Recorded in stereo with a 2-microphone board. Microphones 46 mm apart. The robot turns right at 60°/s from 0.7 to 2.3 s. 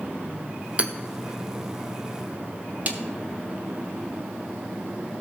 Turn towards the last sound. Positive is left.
turn(degrees=-40)  # may be behind; listen again after turning